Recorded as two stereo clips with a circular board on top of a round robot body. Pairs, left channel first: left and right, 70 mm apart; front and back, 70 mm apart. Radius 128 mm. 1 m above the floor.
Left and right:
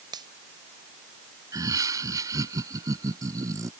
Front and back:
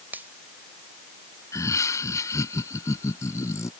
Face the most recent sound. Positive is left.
turn(degrees=-50)